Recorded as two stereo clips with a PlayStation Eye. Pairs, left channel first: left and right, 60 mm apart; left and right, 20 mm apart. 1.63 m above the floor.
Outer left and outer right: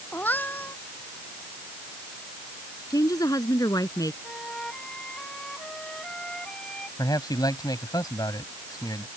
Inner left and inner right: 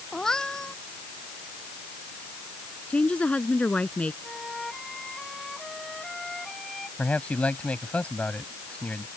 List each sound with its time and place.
0.1 s a cat meowing: 30° left (ahead or behind)
2.9 s a woman speaking: 70° left (ahead or behind)
4.2 s a flute: 15° left (ahead or behind)
7.0 s a man speaking: 85° left